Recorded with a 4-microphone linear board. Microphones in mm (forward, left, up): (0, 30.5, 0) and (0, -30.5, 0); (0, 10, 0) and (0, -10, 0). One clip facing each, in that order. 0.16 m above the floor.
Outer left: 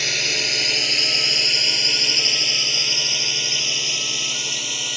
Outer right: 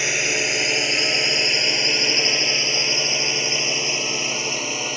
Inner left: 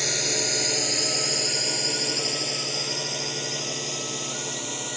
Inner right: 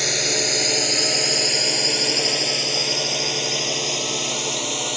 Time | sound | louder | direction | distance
0.0 | a drone | outer right 3 dB, inner right 4 dB | 20° right (ahead or behind) | ?